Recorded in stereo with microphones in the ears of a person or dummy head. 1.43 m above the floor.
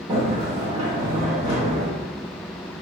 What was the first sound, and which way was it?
A sliding door, 50° right (ahead or behind).